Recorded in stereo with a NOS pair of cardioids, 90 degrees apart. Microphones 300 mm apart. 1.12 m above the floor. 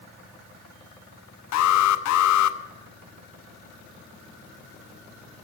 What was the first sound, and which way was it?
An alarm, 65° left.